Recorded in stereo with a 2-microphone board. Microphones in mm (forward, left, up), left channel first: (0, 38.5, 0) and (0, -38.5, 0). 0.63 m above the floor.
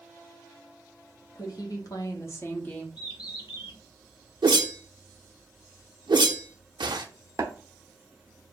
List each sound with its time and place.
1.4 s a woman speaking: 60° left (ahead or behind), 1.2 m; by 2.9 s 15° left (ahead or behind), 0.9 m
3.0 s a bird: 70° left (ahead or behind), 1.2 m
4.4 s a whoosh: 80° right, 0.6 m
7.4 s tapping: 45° right (ahead or behind), 0.9 m